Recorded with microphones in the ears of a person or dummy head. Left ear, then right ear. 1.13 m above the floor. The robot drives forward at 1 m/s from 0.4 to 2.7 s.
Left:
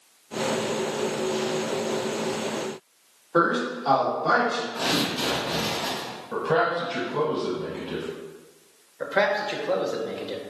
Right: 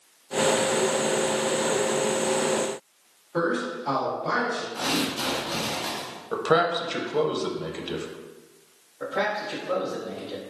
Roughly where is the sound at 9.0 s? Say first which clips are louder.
Left 4 dB; left.